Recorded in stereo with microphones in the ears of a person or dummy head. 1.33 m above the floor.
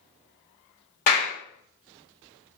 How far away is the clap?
About 1.0 m.